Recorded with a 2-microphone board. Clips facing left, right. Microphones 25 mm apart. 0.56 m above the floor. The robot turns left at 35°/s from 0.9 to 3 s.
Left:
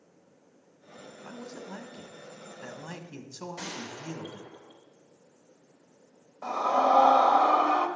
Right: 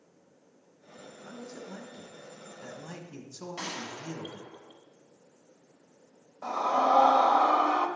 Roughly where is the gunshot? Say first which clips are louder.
Right 4 dB; right.